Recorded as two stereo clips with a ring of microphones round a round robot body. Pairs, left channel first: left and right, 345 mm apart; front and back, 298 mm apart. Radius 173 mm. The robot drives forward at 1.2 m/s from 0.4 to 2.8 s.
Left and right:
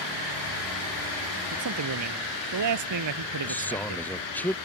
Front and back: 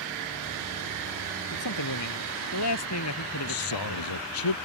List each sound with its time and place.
1.5 s a man speaking: 40° right; by 4.0 s 50° right
3.4 s a man speaking: 5° left